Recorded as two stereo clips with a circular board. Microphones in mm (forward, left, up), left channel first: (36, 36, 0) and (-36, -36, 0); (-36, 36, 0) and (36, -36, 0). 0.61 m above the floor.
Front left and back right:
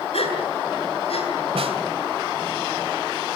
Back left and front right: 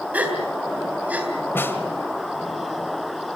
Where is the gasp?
30° left, 3.5 m.